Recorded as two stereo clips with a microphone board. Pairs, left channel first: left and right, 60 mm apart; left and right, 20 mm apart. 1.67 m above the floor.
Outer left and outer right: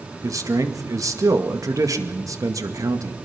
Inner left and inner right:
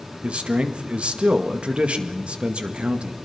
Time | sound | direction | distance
0.2 | a man speaking | 70° right (ahead or behind) | 2 m